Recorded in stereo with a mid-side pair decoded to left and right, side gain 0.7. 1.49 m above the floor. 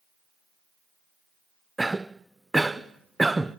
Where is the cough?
10° right, 0.6 m.